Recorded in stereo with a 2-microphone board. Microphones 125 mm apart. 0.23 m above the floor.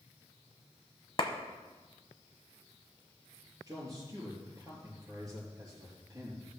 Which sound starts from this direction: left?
A clap, at 1.2 s.